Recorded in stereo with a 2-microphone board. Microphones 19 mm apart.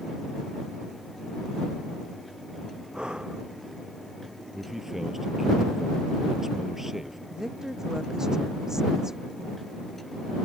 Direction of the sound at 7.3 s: 25° right (ahead or behind).